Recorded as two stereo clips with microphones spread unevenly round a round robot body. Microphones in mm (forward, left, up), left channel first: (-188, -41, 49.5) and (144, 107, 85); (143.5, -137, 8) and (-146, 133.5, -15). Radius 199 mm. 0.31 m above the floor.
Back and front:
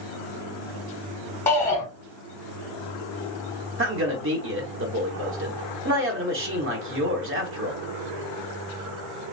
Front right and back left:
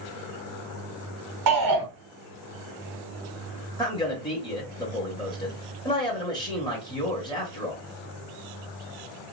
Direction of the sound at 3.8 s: 30° left.